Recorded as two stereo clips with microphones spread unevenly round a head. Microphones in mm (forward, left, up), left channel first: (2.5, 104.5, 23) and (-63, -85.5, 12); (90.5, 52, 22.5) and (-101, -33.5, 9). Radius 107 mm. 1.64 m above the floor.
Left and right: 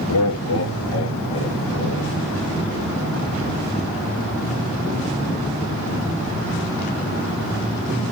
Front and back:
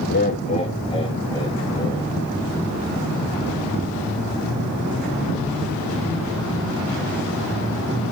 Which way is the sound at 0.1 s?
70° left.